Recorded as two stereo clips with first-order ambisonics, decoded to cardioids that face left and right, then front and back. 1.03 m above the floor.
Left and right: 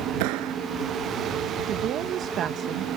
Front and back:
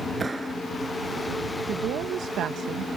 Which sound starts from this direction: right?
A clap, at 0.2 s.